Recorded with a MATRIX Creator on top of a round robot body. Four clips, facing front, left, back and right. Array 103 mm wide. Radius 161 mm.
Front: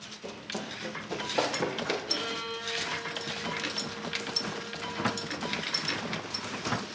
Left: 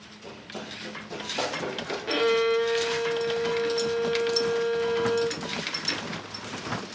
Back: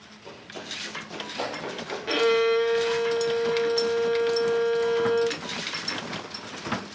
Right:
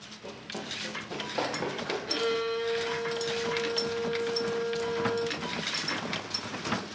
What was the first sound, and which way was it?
Running footsteps, 30° right.